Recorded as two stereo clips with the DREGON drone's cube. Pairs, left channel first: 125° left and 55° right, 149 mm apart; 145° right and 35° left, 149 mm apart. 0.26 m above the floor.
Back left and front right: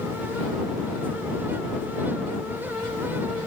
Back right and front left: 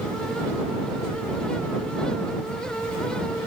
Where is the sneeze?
I don't hear a sneeze.